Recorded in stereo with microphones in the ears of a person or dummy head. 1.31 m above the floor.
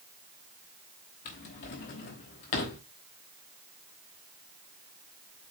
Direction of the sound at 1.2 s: 45° left (ahead or behind).